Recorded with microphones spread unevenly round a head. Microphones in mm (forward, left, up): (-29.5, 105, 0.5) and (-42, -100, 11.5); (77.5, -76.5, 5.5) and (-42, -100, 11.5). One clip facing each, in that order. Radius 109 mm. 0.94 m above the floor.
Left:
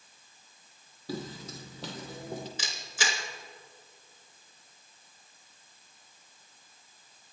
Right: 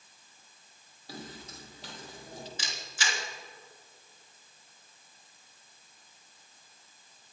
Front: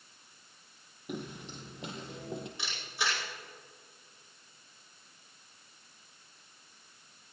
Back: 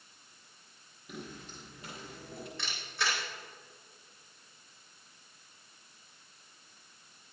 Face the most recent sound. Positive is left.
turn(degrees=95)